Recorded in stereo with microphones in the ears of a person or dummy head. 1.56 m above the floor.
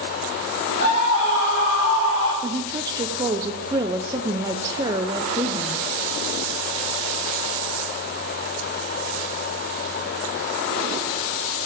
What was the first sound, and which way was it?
A scream, 65° left (ahead or behind).